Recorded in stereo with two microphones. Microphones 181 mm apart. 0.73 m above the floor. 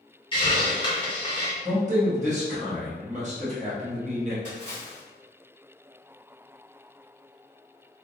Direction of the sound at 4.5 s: 40° right (ahead or behind).